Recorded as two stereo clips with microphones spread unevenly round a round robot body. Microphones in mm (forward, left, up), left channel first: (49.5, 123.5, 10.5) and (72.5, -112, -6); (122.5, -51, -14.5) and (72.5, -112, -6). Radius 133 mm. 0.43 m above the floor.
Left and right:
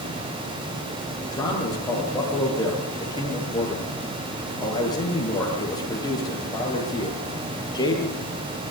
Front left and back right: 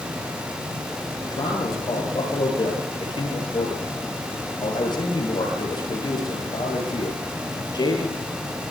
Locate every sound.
1.3 s a man speaking: 20° left, 10 m